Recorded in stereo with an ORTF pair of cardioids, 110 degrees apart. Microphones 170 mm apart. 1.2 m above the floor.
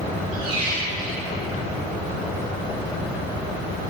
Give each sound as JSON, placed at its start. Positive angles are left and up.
{"t": 0.3, "sound": "a squeak", "azimuth_deg": -30, "distance_m": 1.7}